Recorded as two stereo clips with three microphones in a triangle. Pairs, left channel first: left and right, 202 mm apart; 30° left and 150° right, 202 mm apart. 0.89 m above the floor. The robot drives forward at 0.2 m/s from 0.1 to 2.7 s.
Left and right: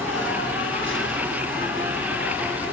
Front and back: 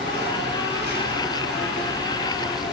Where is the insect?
Straight behind, 8 m.